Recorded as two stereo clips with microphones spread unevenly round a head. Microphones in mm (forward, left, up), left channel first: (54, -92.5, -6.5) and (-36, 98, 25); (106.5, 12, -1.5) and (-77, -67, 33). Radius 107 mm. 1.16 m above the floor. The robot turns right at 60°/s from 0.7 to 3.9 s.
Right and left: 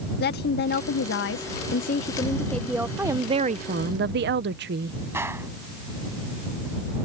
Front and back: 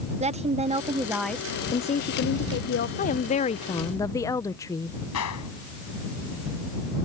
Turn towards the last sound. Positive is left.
turn(degrees=40)